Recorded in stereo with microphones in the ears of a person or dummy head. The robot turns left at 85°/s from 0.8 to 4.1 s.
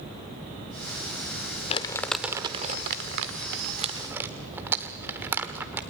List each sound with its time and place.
1.7 s crumpling: 35° left (ahead or behind), 1.3 m; by 5.8 s 10° right (ahead or behind), 1.3 m